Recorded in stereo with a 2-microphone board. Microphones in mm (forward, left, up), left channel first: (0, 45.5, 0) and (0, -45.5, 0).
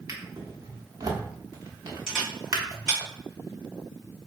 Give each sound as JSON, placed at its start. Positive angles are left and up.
{"t": 0.1, "sound": "a drawer", "side_deg": -40, "distance_m": 1.0}
{"t": 2.1, "sound": "a camera shutter", "side_deg": 5, "distance_m": 2.0}